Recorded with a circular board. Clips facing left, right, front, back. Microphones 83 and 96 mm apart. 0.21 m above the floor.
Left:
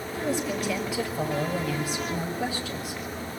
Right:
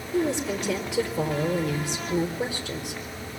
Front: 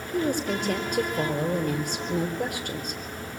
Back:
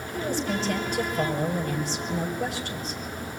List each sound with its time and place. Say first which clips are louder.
0.1 s a woman speaking: right 3 dB, front 2 dB; 25° right, 4 m